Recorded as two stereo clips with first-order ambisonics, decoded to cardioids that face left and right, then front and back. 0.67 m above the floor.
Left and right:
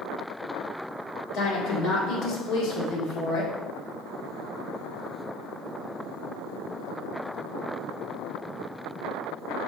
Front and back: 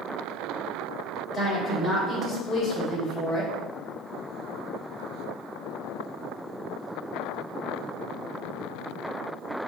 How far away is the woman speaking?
About 1.5 m.